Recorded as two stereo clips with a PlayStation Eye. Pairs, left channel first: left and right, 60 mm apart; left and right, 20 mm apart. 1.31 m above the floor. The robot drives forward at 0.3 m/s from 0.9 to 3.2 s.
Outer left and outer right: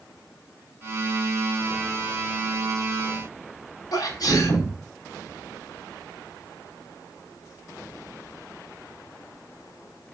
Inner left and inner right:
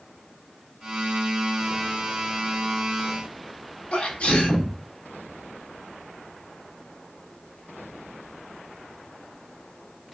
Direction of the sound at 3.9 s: 75° left (ahead or behind).